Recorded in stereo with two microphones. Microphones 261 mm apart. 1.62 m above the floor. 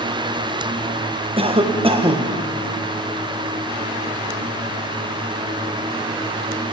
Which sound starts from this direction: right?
A cough, at 1.4 s.